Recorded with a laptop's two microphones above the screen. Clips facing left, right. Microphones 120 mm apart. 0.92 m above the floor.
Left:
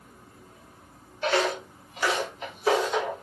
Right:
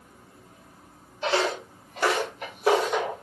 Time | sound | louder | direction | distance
1.2 | footsteps | even | 25° right (ahead or behind) | 1.0 m